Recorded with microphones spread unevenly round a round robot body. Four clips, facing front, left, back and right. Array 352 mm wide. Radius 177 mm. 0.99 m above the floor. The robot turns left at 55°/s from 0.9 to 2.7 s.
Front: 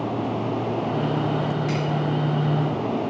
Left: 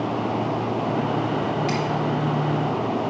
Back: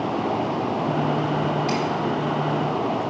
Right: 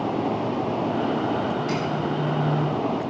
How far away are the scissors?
About 7 m.